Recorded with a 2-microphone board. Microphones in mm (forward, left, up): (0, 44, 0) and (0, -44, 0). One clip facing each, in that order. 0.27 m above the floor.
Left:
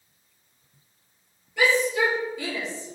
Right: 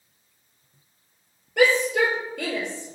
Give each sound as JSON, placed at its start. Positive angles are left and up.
{"t": 1.6, "sound": "a shout", "side_deg": -60, "distance_m": 5.5}